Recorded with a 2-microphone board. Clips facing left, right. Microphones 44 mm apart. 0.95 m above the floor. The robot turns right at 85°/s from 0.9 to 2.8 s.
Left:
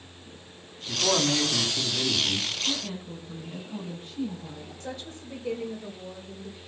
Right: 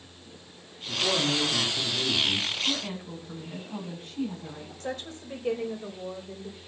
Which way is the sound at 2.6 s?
75° right (ahead or behind).